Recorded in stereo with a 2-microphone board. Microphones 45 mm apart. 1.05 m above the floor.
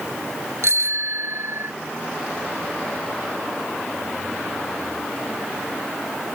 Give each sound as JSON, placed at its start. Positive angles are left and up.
{"t": 0.6, "sound": "a bicycle bell", "side_deg": -70}